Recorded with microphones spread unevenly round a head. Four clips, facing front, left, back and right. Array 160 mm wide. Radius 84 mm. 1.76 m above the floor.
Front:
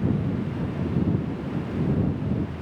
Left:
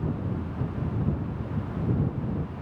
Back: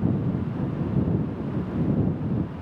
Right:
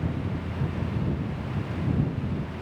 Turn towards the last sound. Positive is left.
No sound to turn to.